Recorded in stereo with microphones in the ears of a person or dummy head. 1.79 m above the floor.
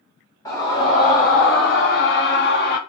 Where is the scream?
25° left (ahead or behind), 1.0 m; by 2.8 s 55° left (ahead or behind), 1.0 m.